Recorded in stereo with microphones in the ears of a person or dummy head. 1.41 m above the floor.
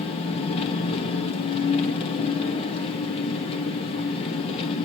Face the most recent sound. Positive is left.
turn(degrees=35)  # may be behind; listen again after turning